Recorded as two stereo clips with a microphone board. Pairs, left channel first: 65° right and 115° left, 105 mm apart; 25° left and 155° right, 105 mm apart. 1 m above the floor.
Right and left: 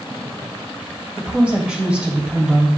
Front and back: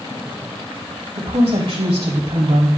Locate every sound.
1.2 s a woman speaking: 170° right, 3 m